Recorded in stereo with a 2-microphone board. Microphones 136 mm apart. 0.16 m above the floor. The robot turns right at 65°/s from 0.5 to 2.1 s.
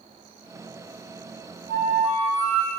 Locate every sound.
1.7 s a flute: 70° right (ahead or behind), 3.5 m; by 2.7 s 50° right (ahead or behind), 3.5 m